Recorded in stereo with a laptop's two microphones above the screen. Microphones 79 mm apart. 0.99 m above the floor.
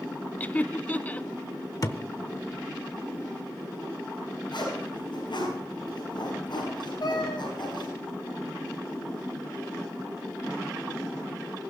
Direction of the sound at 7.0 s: 75° left (ahead or behind).